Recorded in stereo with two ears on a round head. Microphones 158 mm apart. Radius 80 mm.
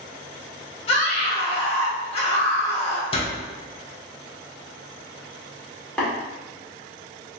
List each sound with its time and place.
0.9 s a scream: 35° left (ahead or behind), 1.0 m
3.1 s a door slam: 35° left (ahead or behind), 1.1 m
6.0 s tapping: 5° left (ahead or behind), 1.8 m